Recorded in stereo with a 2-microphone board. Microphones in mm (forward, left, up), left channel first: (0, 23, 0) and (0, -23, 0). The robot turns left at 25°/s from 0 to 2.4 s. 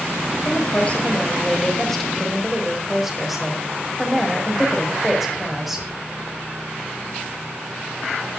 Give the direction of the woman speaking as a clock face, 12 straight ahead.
11 o'clock.